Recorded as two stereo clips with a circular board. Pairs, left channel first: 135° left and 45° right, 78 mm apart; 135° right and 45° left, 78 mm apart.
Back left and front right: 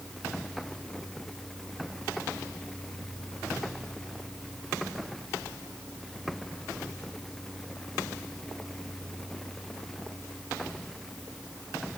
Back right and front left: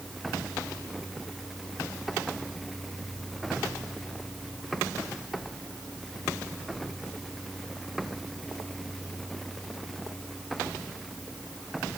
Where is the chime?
I don't hear a chime.